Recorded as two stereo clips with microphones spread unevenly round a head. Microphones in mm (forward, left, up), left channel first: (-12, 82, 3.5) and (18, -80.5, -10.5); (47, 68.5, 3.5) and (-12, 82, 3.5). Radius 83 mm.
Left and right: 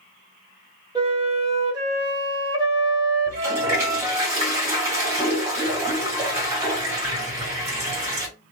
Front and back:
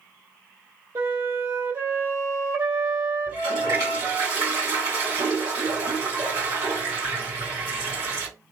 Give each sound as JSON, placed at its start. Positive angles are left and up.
{"t": 0.9, "sound": "a flute", "azimuth_deg": -145, "distance_m": 1.1}
{"t": 3.3, "sound": "a toilet flushing", "azimuth_deg": -150, "distance_m": 1.6}